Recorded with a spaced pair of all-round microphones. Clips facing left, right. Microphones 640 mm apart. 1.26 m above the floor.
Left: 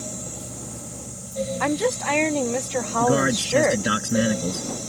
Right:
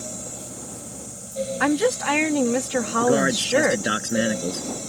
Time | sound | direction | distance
0.0 | a fan | 30° left (ahead or behind) | ?
1.6 | a woman speaking | 45° right (ahead or behind) | ?
3.0 | a man speaking | 30° left (ahead or behind) | ?